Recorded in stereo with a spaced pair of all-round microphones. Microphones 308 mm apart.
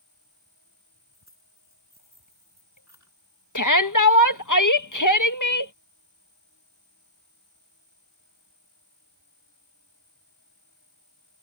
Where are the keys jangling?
60° right (ahead or behind).